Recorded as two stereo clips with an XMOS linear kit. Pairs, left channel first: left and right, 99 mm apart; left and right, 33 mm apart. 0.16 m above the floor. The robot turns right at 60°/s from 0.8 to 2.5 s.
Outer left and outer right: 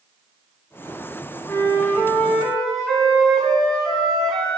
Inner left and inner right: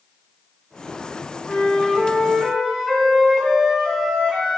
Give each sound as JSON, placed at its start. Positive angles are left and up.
{"t": 1.5, "sound": "a flute", "side_deg": 20, "distance_m": 1.3}